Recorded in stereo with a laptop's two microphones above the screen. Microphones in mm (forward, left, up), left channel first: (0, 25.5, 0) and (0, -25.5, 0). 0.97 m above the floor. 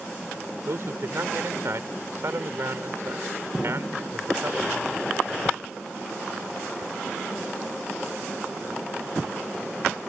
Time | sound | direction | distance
0.7 | a man speaking | 60° right (ahead or behind) | ?
3.5 | an explosion | 20° left (ahead or behind) | ?